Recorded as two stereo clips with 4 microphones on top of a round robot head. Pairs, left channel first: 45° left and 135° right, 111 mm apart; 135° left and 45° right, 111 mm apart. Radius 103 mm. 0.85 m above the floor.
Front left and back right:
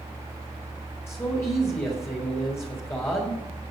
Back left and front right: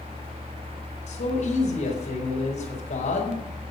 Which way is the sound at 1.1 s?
115° left.